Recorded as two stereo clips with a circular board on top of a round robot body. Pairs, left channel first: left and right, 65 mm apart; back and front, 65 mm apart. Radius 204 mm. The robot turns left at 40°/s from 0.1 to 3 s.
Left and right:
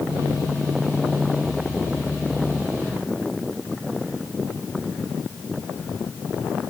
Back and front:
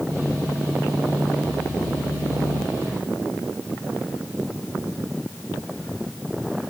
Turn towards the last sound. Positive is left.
No sound to turn to.